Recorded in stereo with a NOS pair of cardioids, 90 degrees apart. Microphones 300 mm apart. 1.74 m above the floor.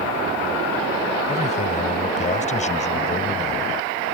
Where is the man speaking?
25° left.